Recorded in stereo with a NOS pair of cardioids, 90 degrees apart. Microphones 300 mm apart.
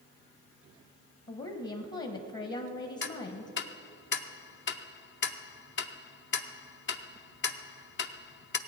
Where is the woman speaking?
40° left, 1.3 m.